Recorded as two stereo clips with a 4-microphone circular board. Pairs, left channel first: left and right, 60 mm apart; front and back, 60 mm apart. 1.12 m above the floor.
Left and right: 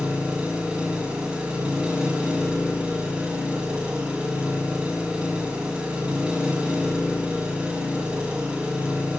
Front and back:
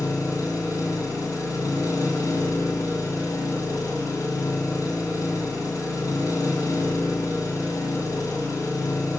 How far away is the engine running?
About 5.5 m.